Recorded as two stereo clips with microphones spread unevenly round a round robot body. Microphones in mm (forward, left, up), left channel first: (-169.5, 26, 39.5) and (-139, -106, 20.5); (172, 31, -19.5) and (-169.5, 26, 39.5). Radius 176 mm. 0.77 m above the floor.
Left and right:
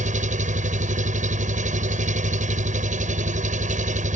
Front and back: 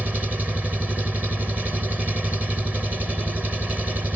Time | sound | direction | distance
0.0 | an engine running | 90° right | ?